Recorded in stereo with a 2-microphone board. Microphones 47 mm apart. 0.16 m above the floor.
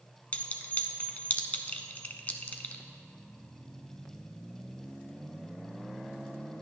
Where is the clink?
30° left (ahead or behind), 0.9 m.